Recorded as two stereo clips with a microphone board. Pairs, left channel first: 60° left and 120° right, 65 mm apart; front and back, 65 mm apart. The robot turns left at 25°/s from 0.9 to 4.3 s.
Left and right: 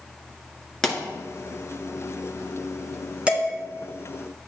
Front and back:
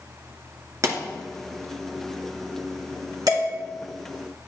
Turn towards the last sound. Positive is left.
turn(degrees=140)